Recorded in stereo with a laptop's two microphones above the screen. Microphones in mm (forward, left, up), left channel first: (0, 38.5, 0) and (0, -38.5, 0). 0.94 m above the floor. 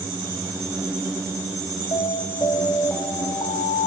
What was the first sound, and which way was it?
An alarm, 50° left (ahead or behind).